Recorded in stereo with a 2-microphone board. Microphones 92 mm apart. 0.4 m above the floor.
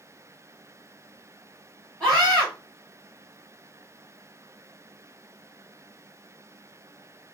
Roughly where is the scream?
Centre.